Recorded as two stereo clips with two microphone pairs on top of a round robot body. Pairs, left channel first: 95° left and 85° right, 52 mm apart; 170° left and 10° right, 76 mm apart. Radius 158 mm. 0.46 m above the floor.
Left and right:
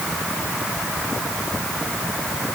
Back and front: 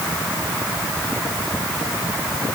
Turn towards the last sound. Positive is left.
No sound to turn to.